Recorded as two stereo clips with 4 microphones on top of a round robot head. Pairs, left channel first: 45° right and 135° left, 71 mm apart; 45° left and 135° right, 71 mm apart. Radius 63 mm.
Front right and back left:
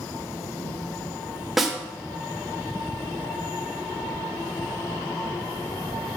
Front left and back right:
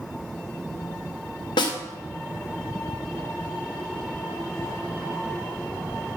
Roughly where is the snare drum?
Ahead left.